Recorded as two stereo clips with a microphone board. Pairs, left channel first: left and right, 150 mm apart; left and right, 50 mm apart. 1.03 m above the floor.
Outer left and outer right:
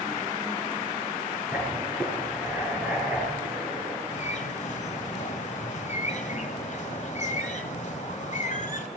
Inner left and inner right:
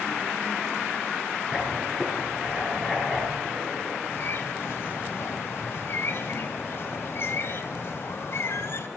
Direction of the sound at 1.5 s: 10° right (ahead or behind).